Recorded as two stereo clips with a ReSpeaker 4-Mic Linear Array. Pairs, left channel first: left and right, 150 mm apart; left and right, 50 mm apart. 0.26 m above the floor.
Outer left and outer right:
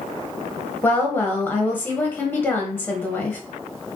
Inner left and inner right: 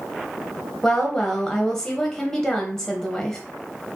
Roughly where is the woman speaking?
Centre.